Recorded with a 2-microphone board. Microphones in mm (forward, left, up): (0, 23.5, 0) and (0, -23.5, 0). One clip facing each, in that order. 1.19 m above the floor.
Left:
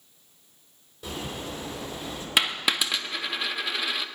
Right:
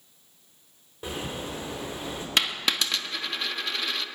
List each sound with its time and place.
1.0 s a bird: 35° right (ahead or behind), 3.5 m
2.4 s a dropped coin: 10° left (ahead or behind), 0.6 m